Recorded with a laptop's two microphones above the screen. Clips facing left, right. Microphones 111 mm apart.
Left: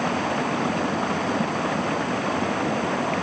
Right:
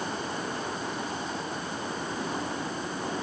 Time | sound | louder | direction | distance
0.0 | running water | left 9 dB | 85° left | ?